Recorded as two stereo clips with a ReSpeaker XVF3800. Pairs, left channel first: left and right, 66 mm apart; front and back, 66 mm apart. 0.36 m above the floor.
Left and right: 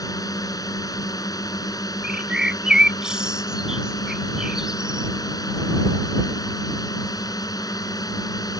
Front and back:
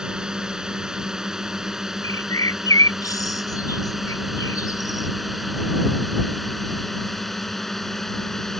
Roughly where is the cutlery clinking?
I don't hear cutlery clinking.